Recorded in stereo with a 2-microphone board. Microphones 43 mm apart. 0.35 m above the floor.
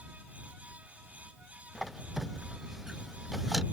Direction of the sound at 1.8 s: Centre (ahead or behind).